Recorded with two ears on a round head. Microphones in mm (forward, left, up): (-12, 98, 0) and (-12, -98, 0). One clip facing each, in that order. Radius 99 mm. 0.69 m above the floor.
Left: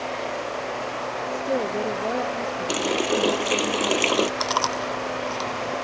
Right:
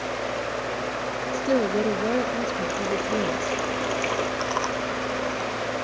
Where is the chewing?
55° left (ahead or behind).